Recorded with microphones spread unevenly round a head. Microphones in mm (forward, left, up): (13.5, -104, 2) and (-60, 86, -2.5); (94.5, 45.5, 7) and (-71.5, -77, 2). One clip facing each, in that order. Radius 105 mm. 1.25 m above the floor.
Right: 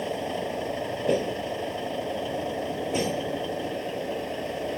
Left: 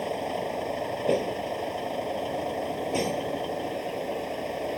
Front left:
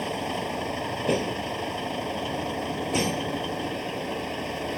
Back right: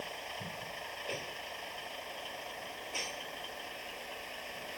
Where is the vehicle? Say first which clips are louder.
Even, front left 15 dB; 15° left.